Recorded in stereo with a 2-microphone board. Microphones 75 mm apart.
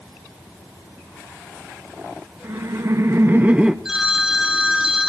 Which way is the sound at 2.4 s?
45° right (ahead or behind).